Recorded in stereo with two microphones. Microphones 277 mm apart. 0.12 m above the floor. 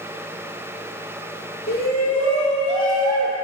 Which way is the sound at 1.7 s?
35° left (ahead or behind).